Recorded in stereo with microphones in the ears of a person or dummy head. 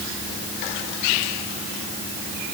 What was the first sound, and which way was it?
Only background noise.